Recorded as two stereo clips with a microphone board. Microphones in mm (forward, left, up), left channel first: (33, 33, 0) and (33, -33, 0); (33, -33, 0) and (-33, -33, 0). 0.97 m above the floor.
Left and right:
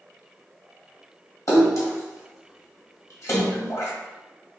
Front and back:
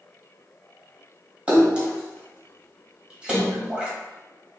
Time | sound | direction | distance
1.5 | a splash | 110° left | 1.2 m